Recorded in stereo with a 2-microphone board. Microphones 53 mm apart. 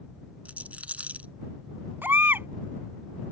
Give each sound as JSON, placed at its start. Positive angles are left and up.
{"t": 0.5, "sound": "a rattle", "side_deg": -30}
{"t": 2.0, "sound": "a baby crying", "side_deg": -40}